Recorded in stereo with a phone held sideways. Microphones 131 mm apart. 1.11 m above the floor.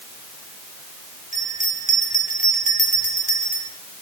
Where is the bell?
70° left (ahead or behind), 5 m.